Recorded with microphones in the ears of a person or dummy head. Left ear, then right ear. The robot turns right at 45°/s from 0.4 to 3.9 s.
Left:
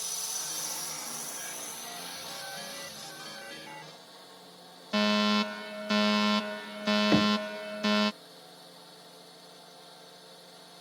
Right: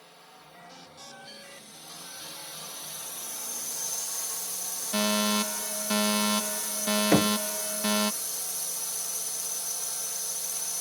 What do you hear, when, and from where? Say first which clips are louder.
0.0 s a drone: left 15 dB; 90° left; by 10.8 s 110° right
4.9 s a fire alarm: even; 10° left (ahead or behind)
7.1 s knocking: right 4 dB; 35° right (ahead or behind)